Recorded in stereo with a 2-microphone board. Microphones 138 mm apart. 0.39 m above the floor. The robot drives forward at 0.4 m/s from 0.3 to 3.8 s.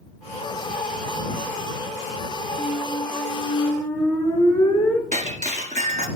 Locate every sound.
2.6 s a squeak: 20° left (ahead or behind), 1.6 m; by 5.0 s 15° left (ahead or behind), 2 m
5.1 s breaking glass: 70° right (ahead or behind), 1.8 m